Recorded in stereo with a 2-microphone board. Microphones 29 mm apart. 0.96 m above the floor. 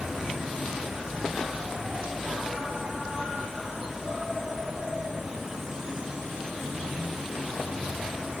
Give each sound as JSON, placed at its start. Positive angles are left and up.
{"t": 0.0, "sound": "an insect", "side_deg": -10, "distance_m": 2.5}